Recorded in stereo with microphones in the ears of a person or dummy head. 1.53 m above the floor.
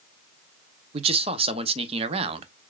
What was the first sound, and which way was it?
A man speaking, 35° right (ahead or behind).